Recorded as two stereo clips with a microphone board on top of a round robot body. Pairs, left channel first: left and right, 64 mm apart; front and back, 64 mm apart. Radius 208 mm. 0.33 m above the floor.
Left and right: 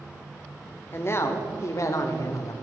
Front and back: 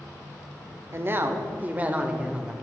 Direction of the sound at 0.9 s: 135° left.